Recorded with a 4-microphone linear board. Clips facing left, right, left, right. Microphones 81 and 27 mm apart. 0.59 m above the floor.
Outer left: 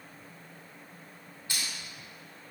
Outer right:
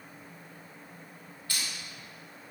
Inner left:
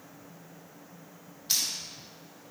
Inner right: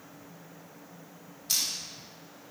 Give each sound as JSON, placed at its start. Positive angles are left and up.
{"t": 1.5, "sound": "crushing", "side_deg": 20, "distance_m": 2.0}